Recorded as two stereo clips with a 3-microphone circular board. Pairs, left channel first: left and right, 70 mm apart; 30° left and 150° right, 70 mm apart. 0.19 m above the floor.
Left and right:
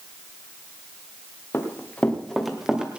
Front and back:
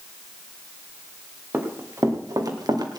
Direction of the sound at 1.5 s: 150° left.